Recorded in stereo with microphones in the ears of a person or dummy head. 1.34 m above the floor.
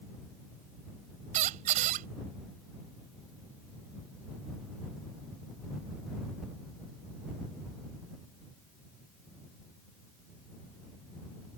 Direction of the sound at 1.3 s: 35° right (ahead or behind).